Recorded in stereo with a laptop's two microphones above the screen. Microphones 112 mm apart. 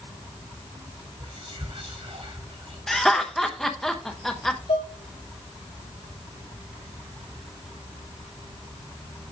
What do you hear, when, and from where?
1.2 s whispering: 55° right (ahead or behind), 3 m
2.9 s laughter: 5° left (ahead or behind), 0.9 m
4.7 s dishes clattering: 70° left (ahead or behind), 2.5 m